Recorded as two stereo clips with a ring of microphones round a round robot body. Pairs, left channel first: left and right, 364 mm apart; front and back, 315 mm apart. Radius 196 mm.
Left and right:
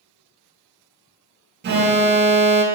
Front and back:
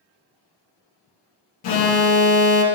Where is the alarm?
25° right, 0.6 m.